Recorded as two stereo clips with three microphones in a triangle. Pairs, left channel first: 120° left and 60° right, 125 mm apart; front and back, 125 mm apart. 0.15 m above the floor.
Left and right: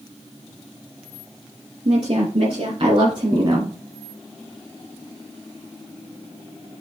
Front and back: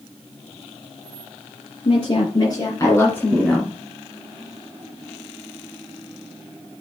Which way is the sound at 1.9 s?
30° right.